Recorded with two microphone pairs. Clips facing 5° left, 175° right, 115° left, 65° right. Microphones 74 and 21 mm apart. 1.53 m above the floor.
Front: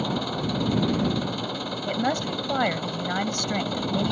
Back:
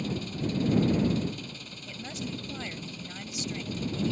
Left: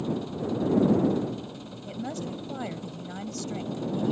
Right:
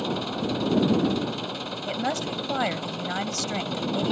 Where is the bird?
I don't hear a bird.